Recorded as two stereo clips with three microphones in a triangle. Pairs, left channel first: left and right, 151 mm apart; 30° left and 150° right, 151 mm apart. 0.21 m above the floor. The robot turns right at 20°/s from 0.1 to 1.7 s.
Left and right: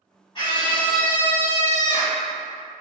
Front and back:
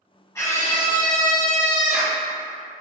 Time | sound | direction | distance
0.3 | a scream | 85° left | 1.2 m